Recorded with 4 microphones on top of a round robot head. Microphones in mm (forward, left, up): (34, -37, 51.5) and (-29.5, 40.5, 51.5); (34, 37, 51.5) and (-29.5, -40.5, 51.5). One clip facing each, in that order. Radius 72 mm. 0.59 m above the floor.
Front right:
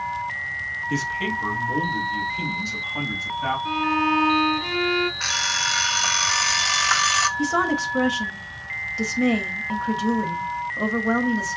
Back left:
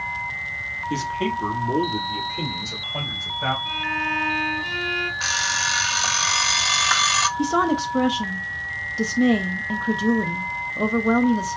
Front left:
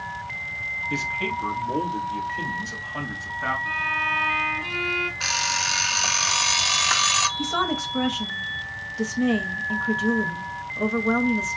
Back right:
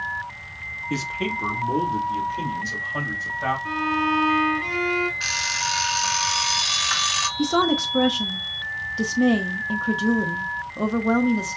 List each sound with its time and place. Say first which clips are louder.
0.9 s a man speaking: back left 2 dB, back right 2 dB; 165° right, 1.3 m; by 3.5 s 160° left, 3.5 m
3.6 s a violin: front right 6 dB, back right 5 dB; 75° right, 1.6 m
5.2 s an alarm clock: back left 1 dB, front left 1 dB; 50° left, 0.5 m
7.4 s a woman speaking: back left 4 dB, back right 5 dB; 175° right, 0.7 m